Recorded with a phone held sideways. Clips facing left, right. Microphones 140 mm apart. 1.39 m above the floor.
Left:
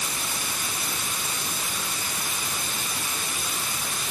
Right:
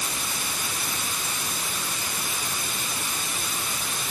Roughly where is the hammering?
I don't hear hammering.